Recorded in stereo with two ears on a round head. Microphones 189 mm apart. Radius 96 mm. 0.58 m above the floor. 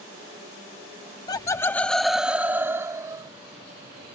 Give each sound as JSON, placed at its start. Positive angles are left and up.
{"t": 1.3, "sound": "laughter", "side_deg": 20}